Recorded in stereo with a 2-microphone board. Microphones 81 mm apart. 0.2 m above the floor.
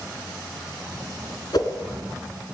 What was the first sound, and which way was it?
A whoosh, 55° left (ahead or behind).